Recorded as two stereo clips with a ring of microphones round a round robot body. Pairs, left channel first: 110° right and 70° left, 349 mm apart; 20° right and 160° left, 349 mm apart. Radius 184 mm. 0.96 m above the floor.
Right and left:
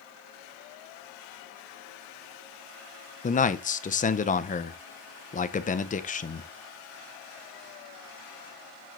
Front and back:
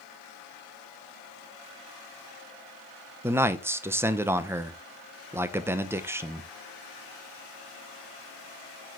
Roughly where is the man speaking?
Behind right.